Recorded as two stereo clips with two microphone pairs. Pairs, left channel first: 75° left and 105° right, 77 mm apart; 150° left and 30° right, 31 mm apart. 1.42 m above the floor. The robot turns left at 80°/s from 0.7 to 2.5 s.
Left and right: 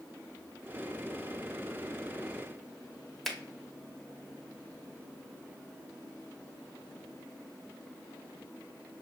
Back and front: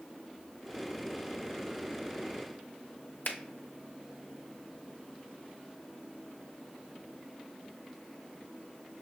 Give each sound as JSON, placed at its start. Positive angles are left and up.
{"t": 3.2, "sound": "a finger snap", "azimuth_deg": 160, "distance_m": 0.8}